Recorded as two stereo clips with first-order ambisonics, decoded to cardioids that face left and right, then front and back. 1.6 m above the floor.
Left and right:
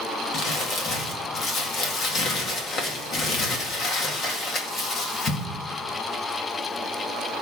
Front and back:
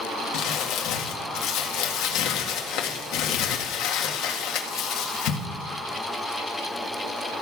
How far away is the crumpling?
About 1.8 m.